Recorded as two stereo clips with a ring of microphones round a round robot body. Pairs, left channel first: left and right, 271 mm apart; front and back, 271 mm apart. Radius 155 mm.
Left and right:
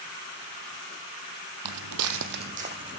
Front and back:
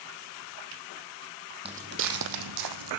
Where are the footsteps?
110° right, 0.8 m; by 3.0 s 170° right, 1.3 m.